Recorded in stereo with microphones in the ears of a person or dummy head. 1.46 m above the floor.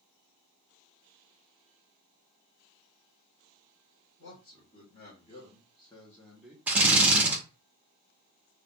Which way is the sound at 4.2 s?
45° left (ahead or behind).